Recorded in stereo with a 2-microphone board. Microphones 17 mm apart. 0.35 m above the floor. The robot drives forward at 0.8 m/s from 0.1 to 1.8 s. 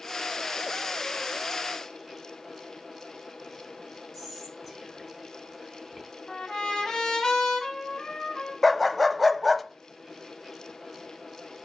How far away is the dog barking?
About 0.6 m.